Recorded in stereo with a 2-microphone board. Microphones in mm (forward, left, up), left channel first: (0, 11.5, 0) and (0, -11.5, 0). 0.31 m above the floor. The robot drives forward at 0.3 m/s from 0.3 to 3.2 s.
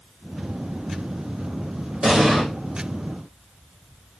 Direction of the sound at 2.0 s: 30° right (ahead or behind).